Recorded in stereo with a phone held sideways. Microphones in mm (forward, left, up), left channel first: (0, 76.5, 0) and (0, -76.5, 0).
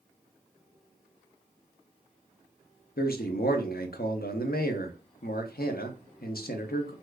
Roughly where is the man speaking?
Left.